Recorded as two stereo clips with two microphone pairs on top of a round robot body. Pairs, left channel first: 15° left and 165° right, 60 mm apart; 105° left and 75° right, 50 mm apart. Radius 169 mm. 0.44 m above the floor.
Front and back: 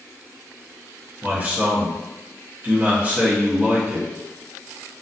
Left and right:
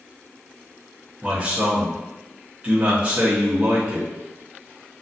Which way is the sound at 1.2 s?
125° right.